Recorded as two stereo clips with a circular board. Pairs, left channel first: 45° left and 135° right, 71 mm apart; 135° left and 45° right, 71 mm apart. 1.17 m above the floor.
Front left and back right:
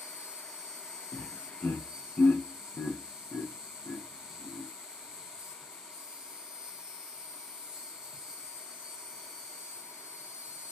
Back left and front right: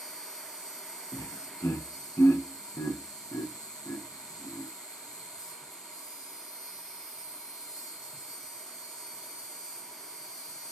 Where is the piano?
I don't hear a piano.